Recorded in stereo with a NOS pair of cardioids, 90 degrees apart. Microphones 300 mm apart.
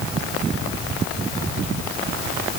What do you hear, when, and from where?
Only background noise.